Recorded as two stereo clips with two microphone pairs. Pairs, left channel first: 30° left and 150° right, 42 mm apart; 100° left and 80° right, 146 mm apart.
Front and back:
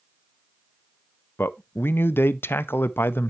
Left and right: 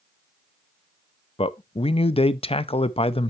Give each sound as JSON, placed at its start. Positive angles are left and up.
{"t": 1.4, "sound": "a man speaking", "azimuth_deg": 55, "distance_m": 0.5}